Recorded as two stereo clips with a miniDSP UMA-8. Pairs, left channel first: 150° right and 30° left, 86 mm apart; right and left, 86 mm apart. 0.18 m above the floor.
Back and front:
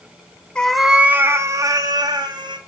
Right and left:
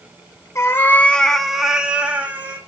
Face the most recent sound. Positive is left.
turn(degrees=20)